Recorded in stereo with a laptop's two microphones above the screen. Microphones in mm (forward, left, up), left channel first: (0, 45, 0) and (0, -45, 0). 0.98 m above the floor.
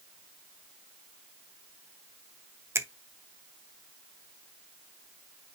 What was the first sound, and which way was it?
A finger snap, 30° right (ahead or behind).